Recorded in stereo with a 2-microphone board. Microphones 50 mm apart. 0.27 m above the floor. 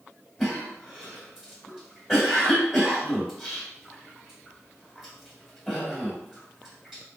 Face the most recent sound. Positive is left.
turn(degrees=-10)  # may be behind; listen again after turning